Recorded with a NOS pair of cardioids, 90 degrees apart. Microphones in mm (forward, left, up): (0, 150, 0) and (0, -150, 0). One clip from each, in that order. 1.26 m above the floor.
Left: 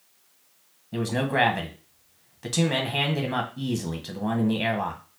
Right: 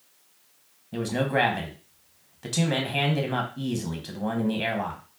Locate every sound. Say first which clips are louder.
0.9 s a man speaking: even; 10° left, 1.2 m